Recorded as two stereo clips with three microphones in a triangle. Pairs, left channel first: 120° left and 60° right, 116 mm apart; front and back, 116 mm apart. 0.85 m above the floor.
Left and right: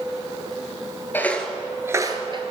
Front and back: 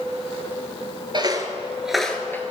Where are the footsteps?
Straight behind, 1.0 m; by 2.4 s 65° right, 1.1 m.